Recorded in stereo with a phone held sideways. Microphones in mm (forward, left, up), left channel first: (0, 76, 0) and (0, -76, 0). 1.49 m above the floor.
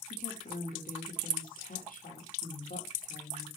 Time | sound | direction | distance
0.1 | a woman speaking | 75° left (ahead or behind) | 3.5 m